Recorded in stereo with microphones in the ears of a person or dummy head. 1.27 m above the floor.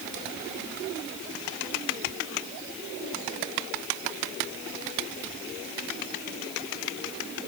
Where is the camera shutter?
No camera shutter in this recording.